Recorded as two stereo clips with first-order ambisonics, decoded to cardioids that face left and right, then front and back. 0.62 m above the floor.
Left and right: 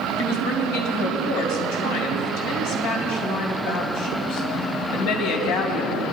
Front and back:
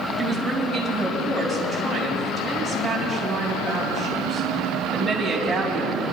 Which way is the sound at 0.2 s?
95° left.